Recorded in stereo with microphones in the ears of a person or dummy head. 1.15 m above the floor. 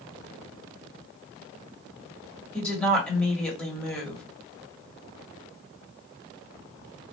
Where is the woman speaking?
5° left (ahead or behind), 1.6 m.